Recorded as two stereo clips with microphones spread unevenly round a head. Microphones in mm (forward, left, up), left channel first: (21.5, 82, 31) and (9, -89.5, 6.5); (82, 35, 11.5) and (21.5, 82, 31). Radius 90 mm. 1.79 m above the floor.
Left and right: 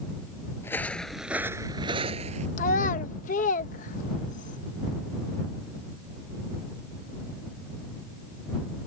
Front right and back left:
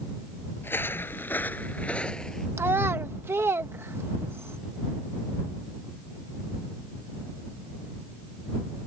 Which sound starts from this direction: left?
A child speaking, at 2.6 s.